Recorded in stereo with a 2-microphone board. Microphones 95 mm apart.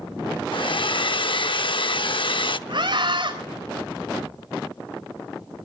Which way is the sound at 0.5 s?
60° left (ahead or behind).